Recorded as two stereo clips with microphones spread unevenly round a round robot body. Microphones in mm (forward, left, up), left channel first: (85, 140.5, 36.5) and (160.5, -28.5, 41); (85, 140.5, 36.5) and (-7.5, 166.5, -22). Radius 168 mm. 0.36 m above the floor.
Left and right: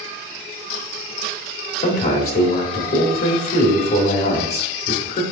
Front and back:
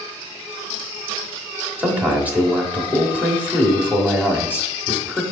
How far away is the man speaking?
About 1.2 m.